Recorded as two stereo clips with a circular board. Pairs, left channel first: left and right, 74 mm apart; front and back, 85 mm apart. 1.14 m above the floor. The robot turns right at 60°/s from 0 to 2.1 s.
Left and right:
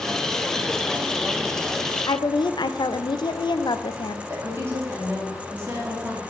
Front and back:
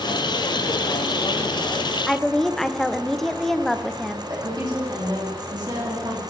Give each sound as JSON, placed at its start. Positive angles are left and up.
{"t": 2.1, "sound": "a woman speaking", "azimuth_deg": 85, "distance_m": 0.6}
{"t": 4.3, "sound": "a woman speaking", "azimuth_deg": -145, "distance_m": 2.5}